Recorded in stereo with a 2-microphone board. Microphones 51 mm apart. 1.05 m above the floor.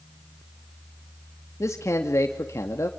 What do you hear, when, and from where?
1.6 s a man speaking: 65° left (ahead or behind), 2 m